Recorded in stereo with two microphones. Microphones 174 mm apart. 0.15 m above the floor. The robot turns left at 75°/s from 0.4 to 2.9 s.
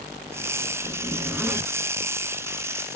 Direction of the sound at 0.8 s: 125° right.